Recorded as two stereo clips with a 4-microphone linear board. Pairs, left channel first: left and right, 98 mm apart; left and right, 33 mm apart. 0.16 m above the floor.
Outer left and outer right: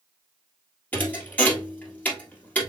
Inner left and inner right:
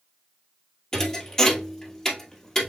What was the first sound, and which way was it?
A thud, 15° left (ahead or behind).